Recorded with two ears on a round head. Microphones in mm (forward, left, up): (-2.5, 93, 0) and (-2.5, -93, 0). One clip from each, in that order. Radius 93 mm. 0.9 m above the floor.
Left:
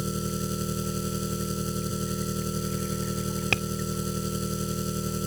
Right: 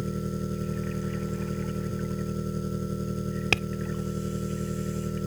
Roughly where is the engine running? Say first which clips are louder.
Left 2 dB; left.